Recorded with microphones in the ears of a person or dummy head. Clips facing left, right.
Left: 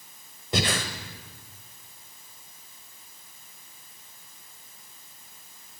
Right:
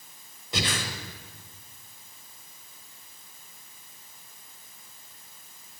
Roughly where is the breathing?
Left.